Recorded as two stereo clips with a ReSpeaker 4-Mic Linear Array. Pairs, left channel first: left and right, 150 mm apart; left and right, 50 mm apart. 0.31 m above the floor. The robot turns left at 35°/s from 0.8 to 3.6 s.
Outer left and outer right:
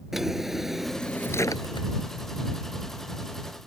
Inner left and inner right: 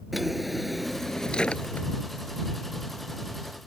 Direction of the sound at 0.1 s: Straight behind.